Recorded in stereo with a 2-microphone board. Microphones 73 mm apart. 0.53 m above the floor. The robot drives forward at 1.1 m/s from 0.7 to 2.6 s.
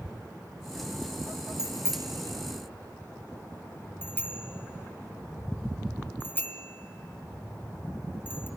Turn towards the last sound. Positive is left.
turn(degrees=25)  # may be behind; listen again after turning